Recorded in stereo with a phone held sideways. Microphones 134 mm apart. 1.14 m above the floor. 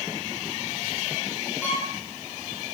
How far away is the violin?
About 4.5 m.